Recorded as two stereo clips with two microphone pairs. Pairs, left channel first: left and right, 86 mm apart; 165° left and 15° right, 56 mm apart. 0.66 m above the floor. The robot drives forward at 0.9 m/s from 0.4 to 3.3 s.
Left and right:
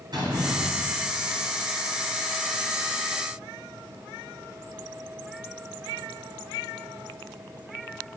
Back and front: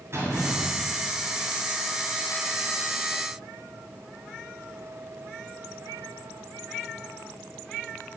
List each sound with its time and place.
0.1 s a door slam: 55° right, 4.5 m; by 1.5 s 70° right, 4 m